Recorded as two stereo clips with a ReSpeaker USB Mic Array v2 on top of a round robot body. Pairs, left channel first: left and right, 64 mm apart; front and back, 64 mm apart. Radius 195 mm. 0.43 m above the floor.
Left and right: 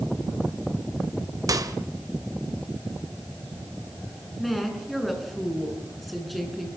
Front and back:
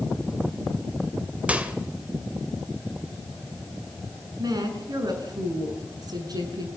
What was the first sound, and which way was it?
A microwave, 110° right.